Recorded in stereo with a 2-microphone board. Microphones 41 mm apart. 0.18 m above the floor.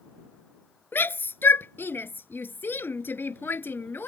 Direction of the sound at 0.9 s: 60° left (ahead or behind).